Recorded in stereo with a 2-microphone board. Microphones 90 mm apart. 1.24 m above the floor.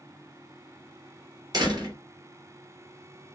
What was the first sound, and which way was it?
A door slam, 50° right (ahead or behind).